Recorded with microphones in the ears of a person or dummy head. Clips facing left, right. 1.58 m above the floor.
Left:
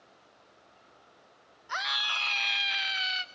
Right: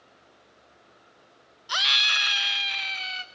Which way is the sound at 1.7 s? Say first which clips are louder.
Right 2 dB; 45° right (ahead or behind).